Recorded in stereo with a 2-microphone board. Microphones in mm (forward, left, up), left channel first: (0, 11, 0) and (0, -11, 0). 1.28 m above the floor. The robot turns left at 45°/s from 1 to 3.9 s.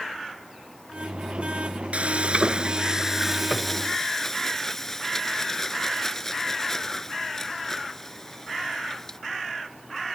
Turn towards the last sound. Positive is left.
turn(degrees=160)